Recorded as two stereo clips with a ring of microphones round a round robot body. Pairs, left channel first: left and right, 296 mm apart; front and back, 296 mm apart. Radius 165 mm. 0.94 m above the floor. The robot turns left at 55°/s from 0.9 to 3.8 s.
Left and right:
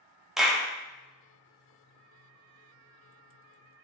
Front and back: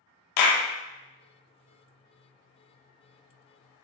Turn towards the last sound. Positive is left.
turn(degrees=-160)